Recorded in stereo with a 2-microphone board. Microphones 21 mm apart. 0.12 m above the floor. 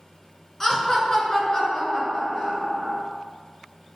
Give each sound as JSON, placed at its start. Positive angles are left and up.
{"t": 0.6, "sound": "laughter", "side_deg": 20, "distance_m": 1.1}